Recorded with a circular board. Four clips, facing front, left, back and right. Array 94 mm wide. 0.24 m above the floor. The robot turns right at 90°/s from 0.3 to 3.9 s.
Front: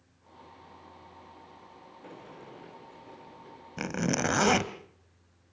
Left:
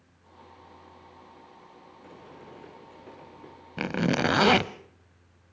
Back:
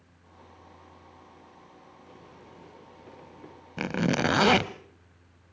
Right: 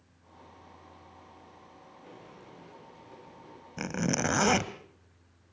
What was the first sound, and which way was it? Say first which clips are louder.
A sliding door: left 4 dB, front 6 dB; 20° left.